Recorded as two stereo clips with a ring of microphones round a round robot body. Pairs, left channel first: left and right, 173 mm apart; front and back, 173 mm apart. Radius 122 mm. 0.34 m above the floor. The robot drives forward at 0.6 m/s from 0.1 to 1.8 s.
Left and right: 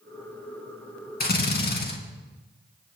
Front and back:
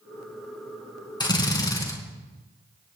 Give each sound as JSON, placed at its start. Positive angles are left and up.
{"t": 1.2, "sound": "a drill", "azimuth_deg": 65, "distance_m": 4.0}